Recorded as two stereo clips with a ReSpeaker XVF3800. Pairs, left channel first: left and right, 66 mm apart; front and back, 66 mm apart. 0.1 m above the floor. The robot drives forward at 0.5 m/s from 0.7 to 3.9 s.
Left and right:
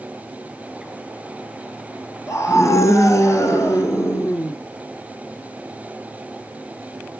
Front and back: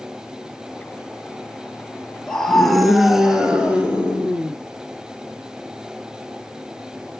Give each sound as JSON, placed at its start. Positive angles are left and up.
{"t": 2.3, "sound": "a scream", "azimuth_deg": 75, "distance_m": 1.7}